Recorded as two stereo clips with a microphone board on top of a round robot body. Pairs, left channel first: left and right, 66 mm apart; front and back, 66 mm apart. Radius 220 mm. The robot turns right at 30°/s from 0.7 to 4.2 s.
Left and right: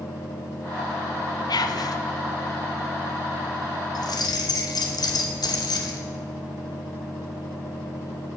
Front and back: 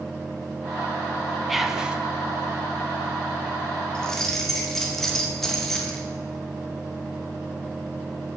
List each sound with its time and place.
1.5 s whispering: 90° left, 0.8 m; by 2.0 s 105° left, 0.8 m
4.0 s keys jangling: 75° left, 1.0 m; by 6.0 s 85° left, 1.0 m